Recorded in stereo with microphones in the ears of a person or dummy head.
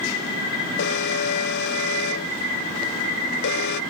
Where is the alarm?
60° left (ahead or behind).